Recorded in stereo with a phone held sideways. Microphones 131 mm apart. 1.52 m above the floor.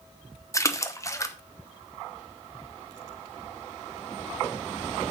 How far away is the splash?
About 0.9 m.